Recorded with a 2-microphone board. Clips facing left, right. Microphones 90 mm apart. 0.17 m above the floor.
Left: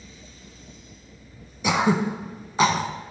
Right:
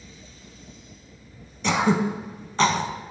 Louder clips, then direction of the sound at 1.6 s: Even; 10° left (ahead or behind).